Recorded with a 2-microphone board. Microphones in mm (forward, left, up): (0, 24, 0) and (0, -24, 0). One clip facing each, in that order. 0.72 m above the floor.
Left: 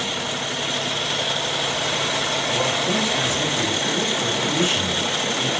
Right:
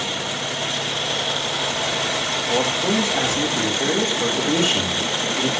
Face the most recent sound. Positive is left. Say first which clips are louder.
# right 3 dB
turn(degrees=-65)  # may be behind; listen again after turning